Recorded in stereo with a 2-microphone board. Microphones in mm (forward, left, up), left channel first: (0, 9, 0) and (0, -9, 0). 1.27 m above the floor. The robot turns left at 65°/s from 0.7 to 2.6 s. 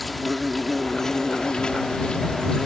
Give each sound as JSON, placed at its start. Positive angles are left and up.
{"t": 0.0, "sound": "an insect", "azimuth_deg": 175}